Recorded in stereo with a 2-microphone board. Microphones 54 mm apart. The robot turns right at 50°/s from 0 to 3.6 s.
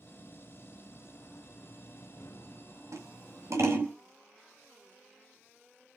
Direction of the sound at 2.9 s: 80° right.